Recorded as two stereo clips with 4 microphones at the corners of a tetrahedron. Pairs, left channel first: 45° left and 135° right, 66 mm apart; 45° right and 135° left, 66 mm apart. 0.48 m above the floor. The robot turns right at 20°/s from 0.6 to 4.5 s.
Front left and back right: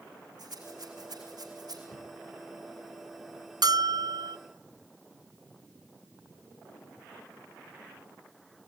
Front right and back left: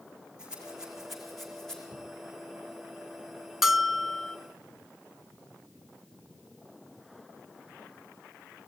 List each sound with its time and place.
0.4 s a rattle: 150° right, 4.5 m; by 1.8 s 125° right, 4.5 m
1.9 s a crack: straight ahead, 5.5 m; by 2.0 s 5° left, 5.5 m
3.6 s a bell: 140° right, 0.5 m; by 4.4 s 125° right, 0.5 m